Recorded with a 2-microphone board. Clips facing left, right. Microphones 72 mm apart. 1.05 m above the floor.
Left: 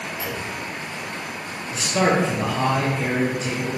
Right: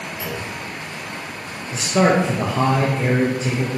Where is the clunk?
50° right (ahead or behind), 2 m.